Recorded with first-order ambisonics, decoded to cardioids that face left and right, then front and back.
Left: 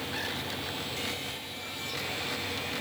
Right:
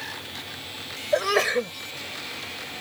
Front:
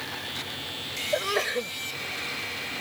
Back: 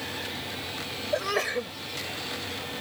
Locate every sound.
1.1 s a sneeze: 90° right